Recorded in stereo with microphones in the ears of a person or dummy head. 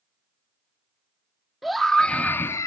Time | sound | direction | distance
1.6 | a scream | 5° left (ahead or behind) | ?